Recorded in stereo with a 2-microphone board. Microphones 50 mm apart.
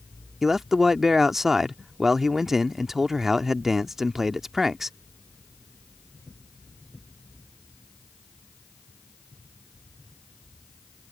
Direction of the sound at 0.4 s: 5° right (ahead or behind).